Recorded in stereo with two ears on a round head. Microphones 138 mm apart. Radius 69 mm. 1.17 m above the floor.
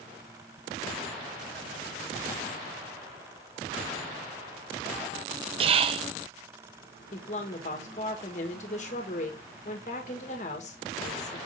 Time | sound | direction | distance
5.6 | whispering | 35° right (ahead or behind) | 0.6 m
7.1 | a woman speaking | 50° left (ahead or behind) | 1.7 m